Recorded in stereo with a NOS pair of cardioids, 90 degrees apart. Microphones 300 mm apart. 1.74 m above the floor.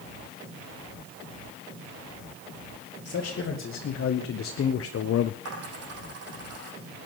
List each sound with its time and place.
3.0 s a man speaking: 45° left, 3 m; by 5.3 s 60° left, 0.6 m
5.5 s a dropped coin: 55° right, 6.5 m